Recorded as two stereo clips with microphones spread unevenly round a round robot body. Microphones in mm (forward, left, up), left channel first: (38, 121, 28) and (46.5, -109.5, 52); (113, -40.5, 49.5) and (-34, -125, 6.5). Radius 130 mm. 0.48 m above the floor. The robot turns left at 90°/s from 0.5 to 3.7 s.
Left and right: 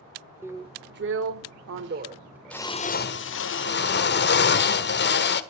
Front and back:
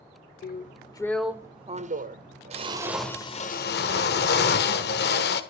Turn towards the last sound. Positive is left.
turn(degrees=65)